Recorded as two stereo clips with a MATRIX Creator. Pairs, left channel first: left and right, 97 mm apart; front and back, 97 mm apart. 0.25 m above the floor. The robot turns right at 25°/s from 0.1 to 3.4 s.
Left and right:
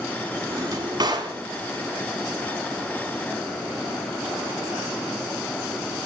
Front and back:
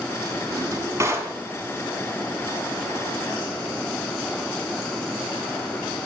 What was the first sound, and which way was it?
A drawer, 140° right.